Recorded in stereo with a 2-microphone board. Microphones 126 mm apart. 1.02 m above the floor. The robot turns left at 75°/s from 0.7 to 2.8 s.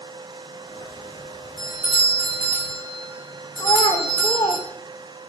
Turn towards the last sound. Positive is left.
turn(degrees=30)  # may be behind; listen again after turning